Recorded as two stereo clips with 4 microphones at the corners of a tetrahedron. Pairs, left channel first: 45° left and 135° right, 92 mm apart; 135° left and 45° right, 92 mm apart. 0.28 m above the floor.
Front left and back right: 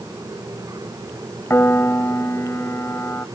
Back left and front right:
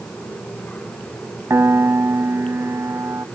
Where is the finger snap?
I don't hear a finger snap.